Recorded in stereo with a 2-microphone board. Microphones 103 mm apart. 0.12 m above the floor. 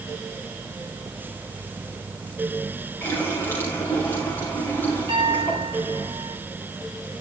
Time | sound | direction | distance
3.0 | a running tap | 25° left (ahead or behind) | 8 m
5.1 | a piano | 50° right (ahead or behind) | 7.5 m